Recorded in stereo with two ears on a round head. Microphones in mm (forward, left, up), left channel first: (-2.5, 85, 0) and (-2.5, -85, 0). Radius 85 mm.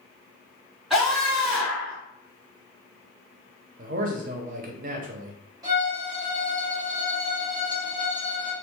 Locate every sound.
0.9 s a scream: centre (ahead or behind), 2.0 m
3.8 s a man speaking: 45° right (ahead or behind), 0.6 m
5.6 s a violin: 20° right (ahead or behind), 1.0 m